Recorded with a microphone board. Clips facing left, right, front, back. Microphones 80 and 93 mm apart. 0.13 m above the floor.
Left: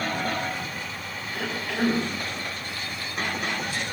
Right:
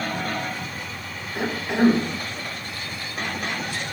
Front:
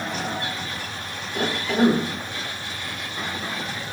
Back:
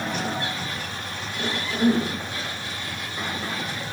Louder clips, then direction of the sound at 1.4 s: Right 6 dB, front 5 dB; 20° right.